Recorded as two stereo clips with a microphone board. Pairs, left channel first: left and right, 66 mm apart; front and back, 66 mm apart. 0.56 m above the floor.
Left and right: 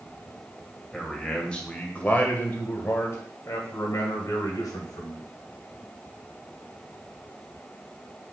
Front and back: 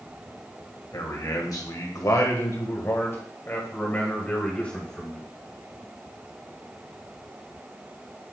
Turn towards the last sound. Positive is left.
turn(degrees=75)